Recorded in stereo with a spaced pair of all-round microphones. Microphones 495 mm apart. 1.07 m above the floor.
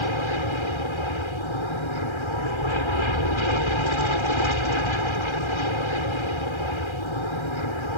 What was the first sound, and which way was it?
An aircraft, 70° left (ahead or behind).